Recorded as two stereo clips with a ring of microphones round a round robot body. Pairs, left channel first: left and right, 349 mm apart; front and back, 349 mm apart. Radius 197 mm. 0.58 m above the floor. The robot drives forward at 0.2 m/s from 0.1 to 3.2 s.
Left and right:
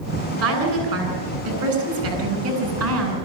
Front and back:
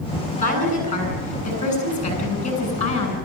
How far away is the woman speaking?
About 8 m.